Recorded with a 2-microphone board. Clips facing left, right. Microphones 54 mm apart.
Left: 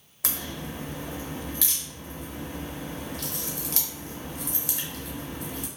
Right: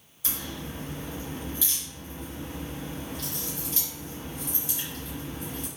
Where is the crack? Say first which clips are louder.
Left 2 dB; 85° left, 0.7 m.